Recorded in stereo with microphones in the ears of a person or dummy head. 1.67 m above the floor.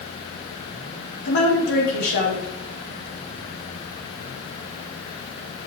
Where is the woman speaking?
60° left (ahead or behind), 3.5 m.